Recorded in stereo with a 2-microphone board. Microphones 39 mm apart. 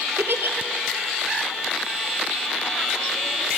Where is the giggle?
80° right, 1.2 m.